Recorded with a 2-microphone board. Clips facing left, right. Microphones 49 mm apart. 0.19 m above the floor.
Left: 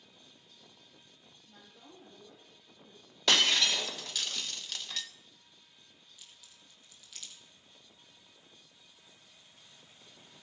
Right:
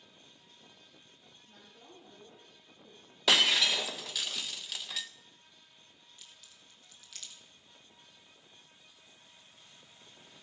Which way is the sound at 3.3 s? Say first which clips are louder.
Right 1 dB; 5° right (ahead or behind).